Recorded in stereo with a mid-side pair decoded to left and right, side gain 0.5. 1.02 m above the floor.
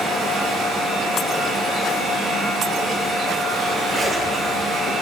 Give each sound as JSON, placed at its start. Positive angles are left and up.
{"t": 0.0, "sound": "a fan", "azimuth_deg": -50, "distance_m": 1.8}
{"t": 3.9, "sound": "a zipper", "azimuth_deg": -30, "distance_m": 1.3}